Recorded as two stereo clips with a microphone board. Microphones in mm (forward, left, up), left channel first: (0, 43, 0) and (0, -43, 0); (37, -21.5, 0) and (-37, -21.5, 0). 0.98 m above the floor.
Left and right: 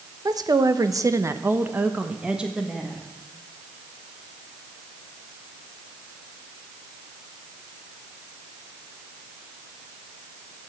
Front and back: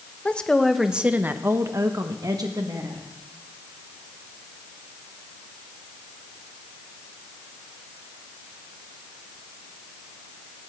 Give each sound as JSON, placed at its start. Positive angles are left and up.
{"t": 0.2, "sound": "a woman speaking", "azimuth_deg": -70, "distance_m": 1.0}